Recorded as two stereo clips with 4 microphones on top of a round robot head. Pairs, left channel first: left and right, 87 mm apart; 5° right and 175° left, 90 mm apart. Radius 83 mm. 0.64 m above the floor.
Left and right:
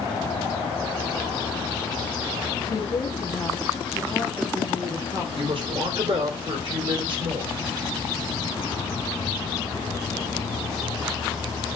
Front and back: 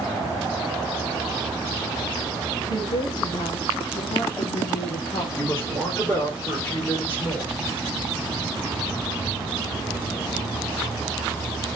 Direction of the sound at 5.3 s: 75° right.